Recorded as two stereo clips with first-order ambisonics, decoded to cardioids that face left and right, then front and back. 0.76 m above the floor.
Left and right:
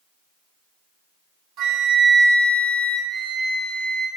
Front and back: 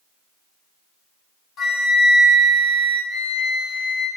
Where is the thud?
I don't hear a thud.